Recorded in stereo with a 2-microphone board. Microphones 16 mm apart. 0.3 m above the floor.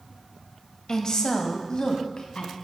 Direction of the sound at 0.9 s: 40° left (ahead or behind).